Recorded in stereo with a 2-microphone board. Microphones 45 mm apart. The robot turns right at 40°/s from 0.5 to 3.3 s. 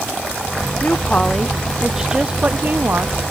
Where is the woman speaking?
140° left; by 3.2 s 120° right.